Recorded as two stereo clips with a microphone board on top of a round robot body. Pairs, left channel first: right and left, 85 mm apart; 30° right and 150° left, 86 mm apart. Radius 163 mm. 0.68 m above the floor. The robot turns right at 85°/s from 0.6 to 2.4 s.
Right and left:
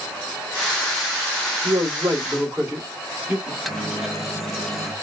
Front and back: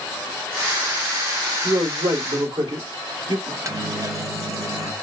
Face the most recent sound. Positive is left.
turn(degrees=175)